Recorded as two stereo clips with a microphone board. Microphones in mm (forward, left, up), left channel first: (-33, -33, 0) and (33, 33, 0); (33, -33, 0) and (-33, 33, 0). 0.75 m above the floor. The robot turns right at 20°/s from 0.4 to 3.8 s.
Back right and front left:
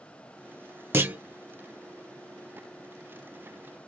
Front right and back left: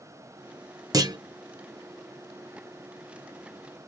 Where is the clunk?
105° left, 0.6 m; by 1.2 s 110° left, 0.6 m.